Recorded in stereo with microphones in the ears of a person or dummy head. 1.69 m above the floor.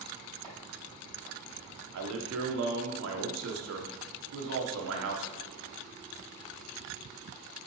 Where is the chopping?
25° right (ahead or behind), 3.5 m.